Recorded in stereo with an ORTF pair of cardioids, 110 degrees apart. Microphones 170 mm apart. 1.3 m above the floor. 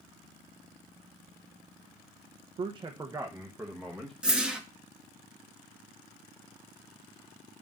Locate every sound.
2.6 s a man speaking: 35° right, 0.6 m; by 4.1 s straight ahead, 1.2 m
4.2 s a whoosh: 5° right, 1.1 m